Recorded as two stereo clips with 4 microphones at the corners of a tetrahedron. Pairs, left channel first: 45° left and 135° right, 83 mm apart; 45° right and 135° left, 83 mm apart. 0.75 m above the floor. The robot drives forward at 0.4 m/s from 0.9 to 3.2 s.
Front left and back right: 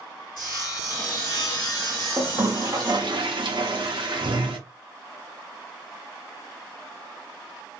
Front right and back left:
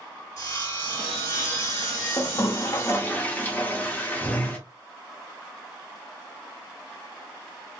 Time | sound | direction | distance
0.4 | sawing | 5° left | 1.8 m
2.2 | a toilet flushing | 80° right | 0.6 m